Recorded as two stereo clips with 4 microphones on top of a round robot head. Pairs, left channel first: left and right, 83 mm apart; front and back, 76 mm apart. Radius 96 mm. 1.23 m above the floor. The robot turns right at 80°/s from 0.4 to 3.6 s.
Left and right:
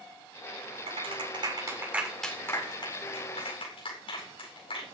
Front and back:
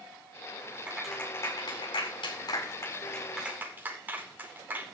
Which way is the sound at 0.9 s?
105° right.